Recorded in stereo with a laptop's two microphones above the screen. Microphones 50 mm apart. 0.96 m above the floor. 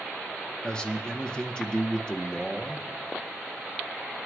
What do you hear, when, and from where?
0.6 s a man speaking: 15° left (ahead or behind), 0.9 m